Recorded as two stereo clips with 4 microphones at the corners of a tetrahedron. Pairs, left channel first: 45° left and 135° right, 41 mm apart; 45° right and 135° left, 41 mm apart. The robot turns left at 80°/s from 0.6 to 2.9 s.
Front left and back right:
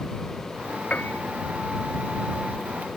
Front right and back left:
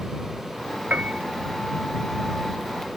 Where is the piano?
95° left; by 1.2 s 70° left.